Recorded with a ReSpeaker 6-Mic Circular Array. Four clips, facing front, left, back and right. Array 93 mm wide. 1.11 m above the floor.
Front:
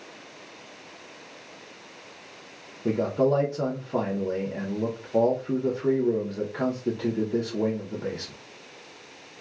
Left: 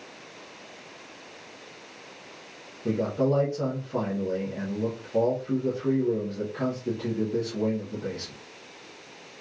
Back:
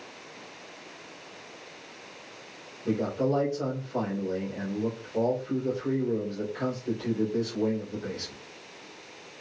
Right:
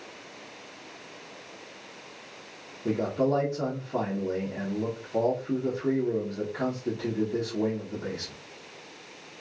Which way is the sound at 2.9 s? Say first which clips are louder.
Left 1 dB, front 4 dB; straight ahead.